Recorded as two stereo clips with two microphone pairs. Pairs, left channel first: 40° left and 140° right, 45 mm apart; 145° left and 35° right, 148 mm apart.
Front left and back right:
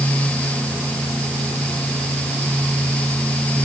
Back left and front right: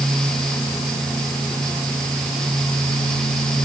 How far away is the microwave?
No microwave in this recording.